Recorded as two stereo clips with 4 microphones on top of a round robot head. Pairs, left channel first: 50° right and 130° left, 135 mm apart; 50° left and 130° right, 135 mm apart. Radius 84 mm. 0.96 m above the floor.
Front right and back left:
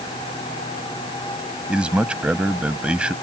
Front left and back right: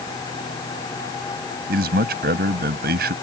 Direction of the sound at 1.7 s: 145° right.